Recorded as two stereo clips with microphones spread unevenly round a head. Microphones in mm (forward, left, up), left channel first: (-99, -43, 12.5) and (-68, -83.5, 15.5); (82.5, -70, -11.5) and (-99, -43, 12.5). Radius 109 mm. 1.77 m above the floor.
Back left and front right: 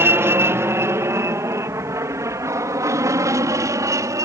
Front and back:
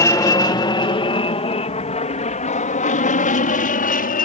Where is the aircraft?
80° right; by 4.2 s 50° right.